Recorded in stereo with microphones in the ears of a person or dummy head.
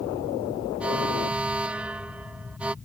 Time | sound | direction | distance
0.8 | an alarm | centre (ahead or behind) | ?